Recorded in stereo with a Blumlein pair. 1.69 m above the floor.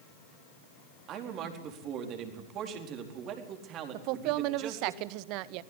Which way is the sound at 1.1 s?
35° right.